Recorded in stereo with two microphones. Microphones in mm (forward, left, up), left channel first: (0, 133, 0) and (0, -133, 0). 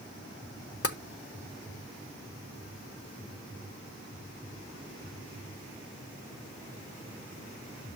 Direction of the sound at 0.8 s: 55° left (ahead or behind).